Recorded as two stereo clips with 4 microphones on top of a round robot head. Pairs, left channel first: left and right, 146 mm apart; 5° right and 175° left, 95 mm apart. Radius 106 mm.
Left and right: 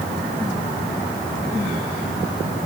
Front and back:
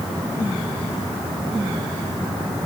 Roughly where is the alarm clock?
I don't hear an alarm clock.